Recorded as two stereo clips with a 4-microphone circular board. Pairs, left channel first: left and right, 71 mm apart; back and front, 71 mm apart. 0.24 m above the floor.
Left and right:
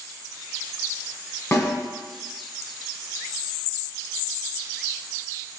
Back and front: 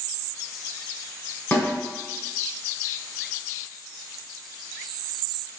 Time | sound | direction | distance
1.5 | a snare drum | 135° left | 1.7 m